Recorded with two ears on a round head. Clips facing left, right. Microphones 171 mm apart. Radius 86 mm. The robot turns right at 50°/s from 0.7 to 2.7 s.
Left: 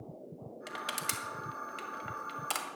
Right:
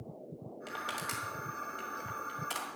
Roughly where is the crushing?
Centre.